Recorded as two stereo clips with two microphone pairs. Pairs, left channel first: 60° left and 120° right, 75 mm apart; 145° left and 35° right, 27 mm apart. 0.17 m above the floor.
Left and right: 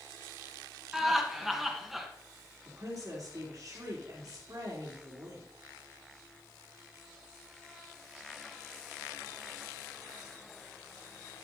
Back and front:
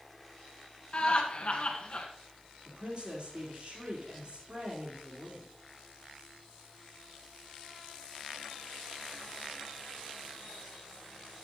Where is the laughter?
155° left, 1.9 m.